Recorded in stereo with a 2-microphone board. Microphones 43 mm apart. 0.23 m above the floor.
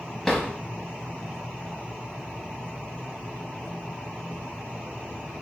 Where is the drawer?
5° left (ahead or behind), 0.7 m.